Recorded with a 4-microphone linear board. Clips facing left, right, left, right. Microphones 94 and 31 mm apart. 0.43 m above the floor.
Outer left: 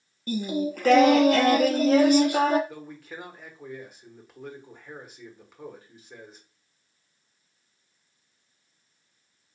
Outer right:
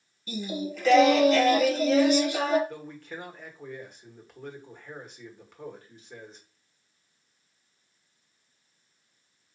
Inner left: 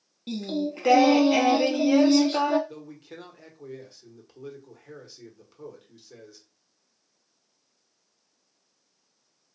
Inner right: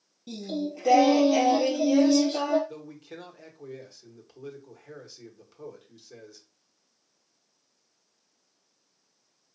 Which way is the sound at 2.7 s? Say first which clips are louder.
Outer right 1 dB, even; 5° left (ahead or behind).